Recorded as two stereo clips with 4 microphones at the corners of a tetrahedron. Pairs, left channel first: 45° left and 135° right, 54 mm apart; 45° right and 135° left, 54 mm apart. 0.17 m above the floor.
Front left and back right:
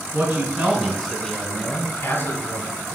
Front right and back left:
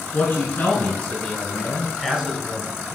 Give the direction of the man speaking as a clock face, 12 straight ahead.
3 o'clock.